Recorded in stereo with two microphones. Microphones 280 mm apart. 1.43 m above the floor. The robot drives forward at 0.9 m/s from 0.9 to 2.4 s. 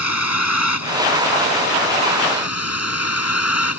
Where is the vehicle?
70° left (ahead or behind); by 3.8 s 60° left (ahead or behind).